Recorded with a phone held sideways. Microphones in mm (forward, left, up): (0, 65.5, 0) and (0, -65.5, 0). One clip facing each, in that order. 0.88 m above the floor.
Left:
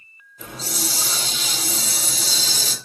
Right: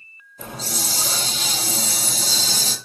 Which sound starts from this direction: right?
A hiss, at 0.4 s.